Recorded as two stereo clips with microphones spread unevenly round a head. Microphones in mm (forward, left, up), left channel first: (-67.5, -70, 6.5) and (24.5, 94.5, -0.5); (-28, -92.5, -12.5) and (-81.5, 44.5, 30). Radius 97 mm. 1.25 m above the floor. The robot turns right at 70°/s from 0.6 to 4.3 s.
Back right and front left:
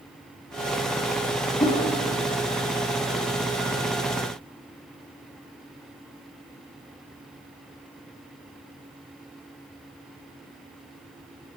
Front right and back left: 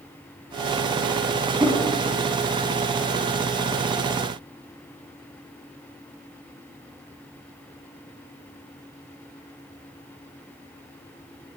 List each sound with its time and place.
1.6 s a whoosh: 175° left, 2.0 m; by 1.8 s 170° right, 2.0 m